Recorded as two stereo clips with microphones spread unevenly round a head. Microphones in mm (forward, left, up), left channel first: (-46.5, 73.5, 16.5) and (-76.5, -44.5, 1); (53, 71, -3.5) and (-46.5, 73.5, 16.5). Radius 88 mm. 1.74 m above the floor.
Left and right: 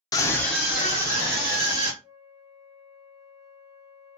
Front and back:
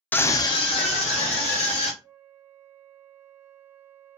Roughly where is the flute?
Behind right.